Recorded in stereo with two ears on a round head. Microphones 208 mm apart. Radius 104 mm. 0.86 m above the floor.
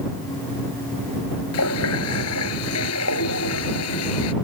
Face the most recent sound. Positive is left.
turn(degrees=75)  # may be behind; listen again after turning